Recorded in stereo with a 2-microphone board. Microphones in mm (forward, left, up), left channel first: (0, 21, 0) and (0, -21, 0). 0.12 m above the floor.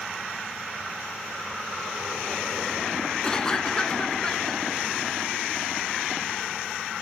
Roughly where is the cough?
Centre.